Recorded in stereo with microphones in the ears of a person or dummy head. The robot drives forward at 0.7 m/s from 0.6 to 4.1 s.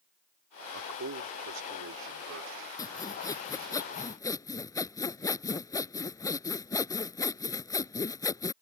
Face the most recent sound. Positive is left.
turn(degrees=15)  # may be behind; listen again after turning